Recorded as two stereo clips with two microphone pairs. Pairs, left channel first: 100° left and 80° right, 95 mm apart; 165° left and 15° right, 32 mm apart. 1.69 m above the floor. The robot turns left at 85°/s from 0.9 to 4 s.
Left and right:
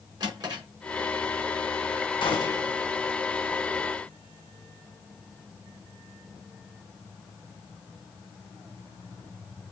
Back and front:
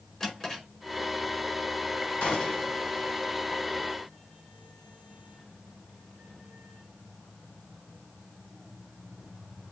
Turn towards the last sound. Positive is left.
turn(degrees=-35)